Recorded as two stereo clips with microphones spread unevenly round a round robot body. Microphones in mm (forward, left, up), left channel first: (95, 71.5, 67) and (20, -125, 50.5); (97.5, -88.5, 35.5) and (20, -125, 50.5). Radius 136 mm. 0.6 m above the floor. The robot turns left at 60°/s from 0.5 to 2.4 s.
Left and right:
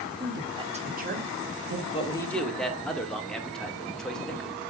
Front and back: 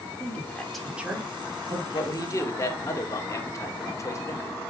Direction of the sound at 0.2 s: 45° right.